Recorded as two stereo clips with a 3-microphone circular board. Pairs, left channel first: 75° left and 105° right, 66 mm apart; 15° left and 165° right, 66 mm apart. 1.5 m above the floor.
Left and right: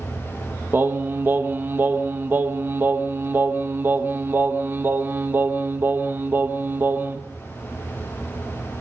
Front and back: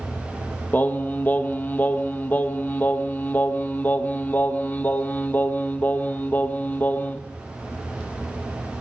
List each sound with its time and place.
0.7 s singing: 45° right, 1.5 m